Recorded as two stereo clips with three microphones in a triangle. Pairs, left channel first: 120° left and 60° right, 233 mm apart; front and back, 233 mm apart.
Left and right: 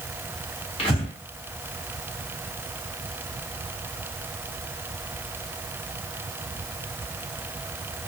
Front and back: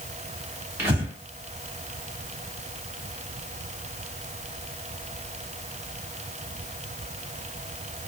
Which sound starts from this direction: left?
Breathing, at 0.8 s.